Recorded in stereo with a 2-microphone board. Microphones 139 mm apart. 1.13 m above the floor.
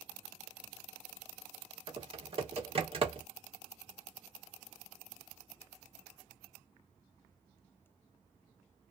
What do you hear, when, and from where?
1.9 s typing on a keyboard: 45° right (ahead or behind), 0.9 m